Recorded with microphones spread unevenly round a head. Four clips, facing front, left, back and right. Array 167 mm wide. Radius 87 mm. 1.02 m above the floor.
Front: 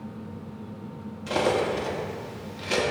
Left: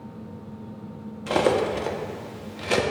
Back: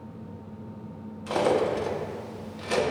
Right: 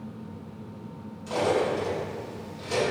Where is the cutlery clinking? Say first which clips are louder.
Left 3 dB, back 1 dB; 80° left, 1.0 m.